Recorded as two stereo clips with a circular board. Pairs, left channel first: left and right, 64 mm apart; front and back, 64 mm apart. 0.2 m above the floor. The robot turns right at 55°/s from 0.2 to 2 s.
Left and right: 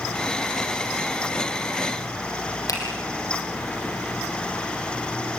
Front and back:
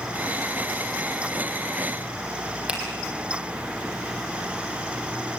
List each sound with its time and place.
2.7 s a finger snap: 105° left, 5 m